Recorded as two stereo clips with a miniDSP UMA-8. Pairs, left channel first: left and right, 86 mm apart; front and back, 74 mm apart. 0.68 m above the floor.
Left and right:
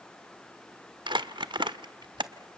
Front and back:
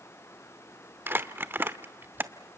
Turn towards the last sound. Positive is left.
turn(degrees=-115)